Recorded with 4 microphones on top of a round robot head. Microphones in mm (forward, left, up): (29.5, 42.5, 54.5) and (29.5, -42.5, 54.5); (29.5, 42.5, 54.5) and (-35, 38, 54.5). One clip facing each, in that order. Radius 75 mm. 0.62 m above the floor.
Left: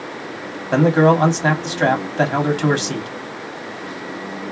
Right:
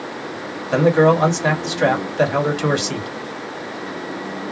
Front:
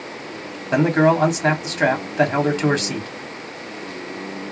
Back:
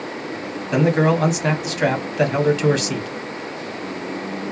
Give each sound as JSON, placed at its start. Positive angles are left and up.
{"t": 0.7, "sound": "a man speaking", "azimuth_deg": 50, "distance_m": 1.8}